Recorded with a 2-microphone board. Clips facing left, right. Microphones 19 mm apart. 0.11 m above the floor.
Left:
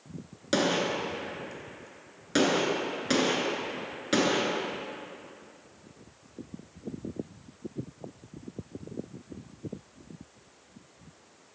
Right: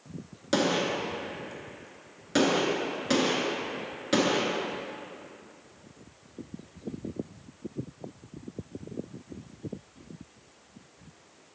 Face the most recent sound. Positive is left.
turn(degrees=10)  # may be behind; listen again after turning